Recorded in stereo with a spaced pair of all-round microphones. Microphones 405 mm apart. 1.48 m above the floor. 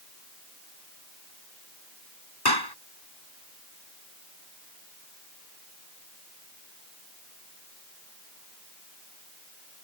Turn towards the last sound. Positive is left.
turn(degrees=70)  # may be behind; listen again after turning